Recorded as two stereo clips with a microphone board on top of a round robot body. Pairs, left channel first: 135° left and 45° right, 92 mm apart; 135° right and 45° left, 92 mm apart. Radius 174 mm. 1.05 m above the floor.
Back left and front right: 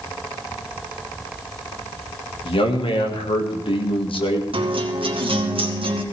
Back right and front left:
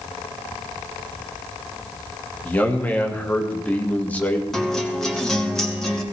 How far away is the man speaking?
About 2 m.